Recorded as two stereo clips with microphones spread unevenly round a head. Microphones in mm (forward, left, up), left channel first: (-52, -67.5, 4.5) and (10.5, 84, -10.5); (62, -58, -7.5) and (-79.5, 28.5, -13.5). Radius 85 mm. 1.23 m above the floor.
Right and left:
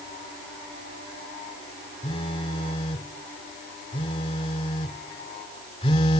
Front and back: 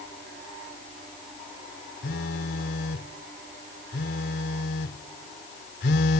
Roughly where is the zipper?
No zipper in this recording.